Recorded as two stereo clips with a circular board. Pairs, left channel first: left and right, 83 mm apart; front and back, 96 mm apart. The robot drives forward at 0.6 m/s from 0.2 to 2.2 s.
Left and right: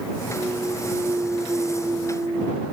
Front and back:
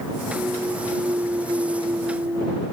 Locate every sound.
0.3 s a clunk: 130° right; by 2.6 s 145° right